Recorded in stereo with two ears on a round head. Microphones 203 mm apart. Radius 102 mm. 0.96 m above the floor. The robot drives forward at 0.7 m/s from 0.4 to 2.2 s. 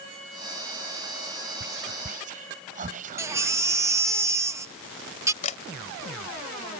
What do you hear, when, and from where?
1.6 s whispering: 45° right (ahead or behind); by 4.2 s 35° right (ahead or behind)
3.2 s a baby crying: 15° right (ahead or behind)
5.4 s a camera shutter: 35° left (ahead or behind)